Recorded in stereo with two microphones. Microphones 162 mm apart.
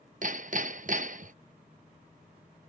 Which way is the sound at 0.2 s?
55° right (ahead or behind).